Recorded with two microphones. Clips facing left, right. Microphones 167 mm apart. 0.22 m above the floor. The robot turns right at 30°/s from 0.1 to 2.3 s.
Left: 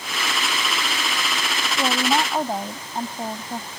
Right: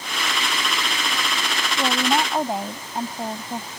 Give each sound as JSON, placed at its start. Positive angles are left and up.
{"t": 1.8, "sound": "a woman speaking", "side_deg": 5}